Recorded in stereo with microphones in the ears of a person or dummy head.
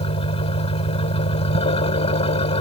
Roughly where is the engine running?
Left.